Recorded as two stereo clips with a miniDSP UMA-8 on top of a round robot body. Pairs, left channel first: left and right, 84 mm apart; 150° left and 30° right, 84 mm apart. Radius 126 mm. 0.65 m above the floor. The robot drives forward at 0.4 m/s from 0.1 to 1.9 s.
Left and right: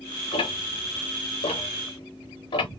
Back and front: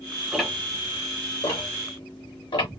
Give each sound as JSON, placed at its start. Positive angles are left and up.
{"t": 0.3, "sound": "ticking", "azimuth_deg": 60, "distance_m": 0.7}